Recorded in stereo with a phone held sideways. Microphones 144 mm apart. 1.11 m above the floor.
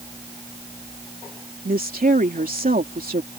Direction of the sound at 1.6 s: 75° right (ahead or behind).